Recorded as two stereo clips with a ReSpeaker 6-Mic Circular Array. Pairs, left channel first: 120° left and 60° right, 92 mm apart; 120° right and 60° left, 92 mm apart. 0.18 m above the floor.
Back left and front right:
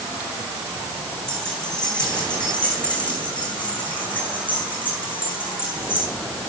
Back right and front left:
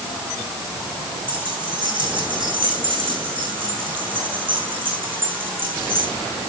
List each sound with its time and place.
1.3 s keys jangling: 35° left, 8.5 m; by 6.1 s 55° left, 8 m